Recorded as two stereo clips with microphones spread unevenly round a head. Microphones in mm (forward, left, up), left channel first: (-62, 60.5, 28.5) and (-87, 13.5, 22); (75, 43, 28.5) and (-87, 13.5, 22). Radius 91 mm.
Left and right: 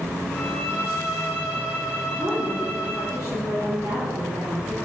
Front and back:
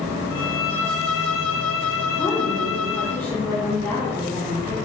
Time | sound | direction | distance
0.3 | a violin | 10° left | 1.1 m
2.1 | a woman speaking | 70° right | 3 m